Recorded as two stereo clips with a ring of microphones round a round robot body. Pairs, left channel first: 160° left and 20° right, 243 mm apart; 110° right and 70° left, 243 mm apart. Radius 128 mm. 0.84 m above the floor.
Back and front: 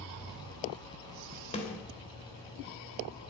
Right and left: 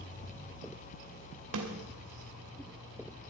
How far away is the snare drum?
About 2.5 m.